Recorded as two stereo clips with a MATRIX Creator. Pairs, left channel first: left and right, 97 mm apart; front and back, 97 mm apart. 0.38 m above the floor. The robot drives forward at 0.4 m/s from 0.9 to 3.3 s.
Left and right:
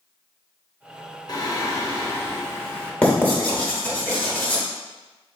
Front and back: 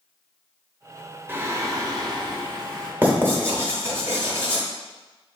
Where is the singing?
120° left, 0.6 m; by 2.9 s 155° left, 1.0 m.